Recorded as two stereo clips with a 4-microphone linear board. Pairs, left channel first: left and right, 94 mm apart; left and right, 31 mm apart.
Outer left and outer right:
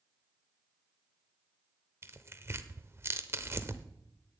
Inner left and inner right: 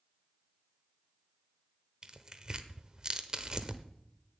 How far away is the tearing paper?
About 0.9 m.